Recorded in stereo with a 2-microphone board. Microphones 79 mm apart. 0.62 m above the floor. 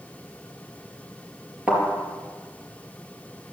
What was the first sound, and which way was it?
A thud, 10° right (ahead or behind).